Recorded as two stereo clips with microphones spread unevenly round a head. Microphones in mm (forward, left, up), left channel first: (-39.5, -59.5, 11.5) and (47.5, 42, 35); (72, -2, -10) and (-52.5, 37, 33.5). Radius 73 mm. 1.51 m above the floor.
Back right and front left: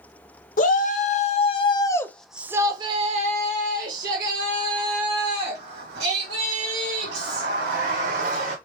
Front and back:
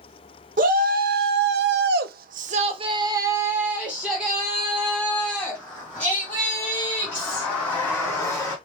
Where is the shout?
160° right, 1.1 m; by 8.6 s 60° left, 3.5 m.